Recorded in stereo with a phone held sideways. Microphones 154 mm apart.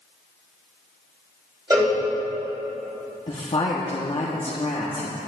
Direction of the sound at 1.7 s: 25° right (ahead or behind).